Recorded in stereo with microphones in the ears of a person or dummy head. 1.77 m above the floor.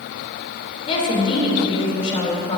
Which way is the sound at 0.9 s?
30° left (ahead or behind).